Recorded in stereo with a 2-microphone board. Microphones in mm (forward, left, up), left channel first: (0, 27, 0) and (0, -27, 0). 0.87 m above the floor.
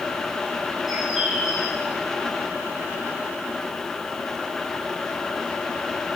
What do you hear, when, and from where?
0.9 s a bird: 5° right (ahead or behind), 5 m